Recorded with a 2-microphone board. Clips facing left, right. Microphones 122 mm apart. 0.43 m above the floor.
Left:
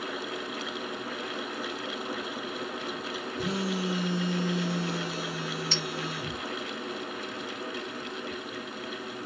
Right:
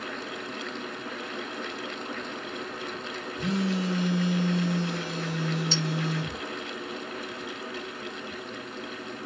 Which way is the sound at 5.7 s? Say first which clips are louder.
Right 4 dB; 55° left (ahead or behind).